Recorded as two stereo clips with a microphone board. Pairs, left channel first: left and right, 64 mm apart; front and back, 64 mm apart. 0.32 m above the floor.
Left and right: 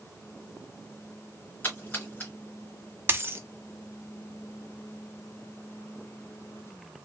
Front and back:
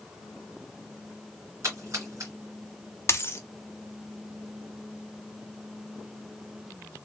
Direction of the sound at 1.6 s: 145° left.